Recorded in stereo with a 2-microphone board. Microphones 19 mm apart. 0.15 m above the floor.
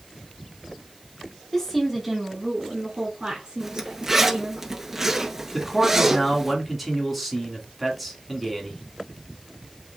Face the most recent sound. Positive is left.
turn(degrees=0)  # may be behind; listen again after turning